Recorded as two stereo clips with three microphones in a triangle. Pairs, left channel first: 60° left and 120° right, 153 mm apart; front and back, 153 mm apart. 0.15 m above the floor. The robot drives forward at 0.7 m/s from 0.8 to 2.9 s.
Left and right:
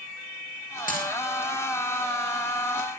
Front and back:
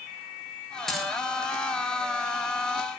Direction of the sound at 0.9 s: 90° left.